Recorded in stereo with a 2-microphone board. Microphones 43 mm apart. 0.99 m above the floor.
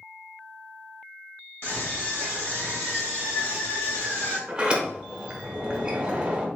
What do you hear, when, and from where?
1.6 s a scream: 55° left (ahead or behind), 1.6 m; by 4.4 s 75° left (ahead or behind), 3 m
4.5 s a sliding door: 15° right (ahead or behind), 0.7 m